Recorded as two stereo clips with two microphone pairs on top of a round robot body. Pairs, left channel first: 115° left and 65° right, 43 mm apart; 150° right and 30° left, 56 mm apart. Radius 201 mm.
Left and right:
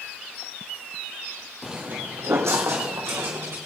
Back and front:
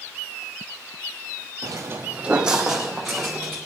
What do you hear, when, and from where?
1.6 s footsteps: 20° left, 0.6 m; by 3.6 s 60° right, 3 m